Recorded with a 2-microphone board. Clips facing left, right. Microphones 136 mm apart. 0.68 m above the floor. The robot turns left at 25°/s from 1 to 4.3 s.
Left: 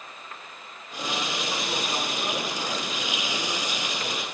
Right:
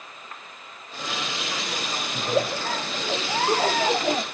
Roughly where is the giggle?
Ahead right.